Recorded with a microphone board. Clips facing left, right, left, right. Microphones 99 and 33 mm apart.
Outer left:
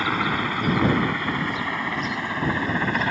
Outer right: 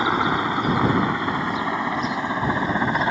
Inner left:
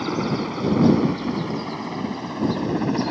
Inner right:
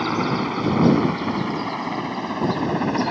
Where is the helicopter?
20° right (ahead or behind).